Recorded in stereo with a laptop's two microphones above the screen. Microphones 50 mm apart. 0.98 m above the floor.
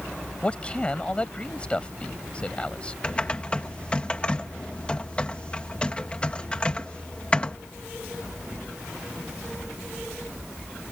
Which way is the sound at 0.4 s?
20° left (ahead or behind).